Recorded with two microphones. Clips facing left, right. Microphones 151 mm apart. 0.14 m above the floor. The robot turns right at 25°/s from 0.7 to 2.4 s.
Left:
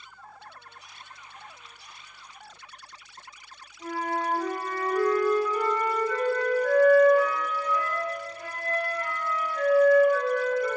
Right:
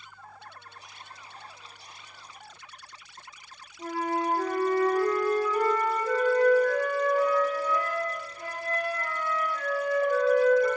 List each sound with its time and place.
3.8 s a flute: 45° right (ahead or behind), 0.5 m